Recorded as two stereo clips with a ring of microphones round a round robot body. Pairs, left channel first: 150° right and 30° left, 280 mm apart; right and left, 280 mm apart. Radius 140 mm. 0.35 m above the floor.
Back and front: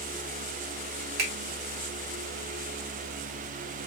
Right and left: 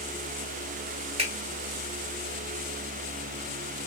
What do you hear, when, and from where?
1.2 s a finger snap: 25° left, 1.9 m